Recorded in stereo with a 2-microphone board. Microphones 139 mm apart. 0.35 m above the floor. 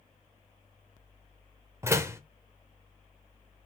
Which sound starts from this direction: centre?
A door slam, at 1.8 s.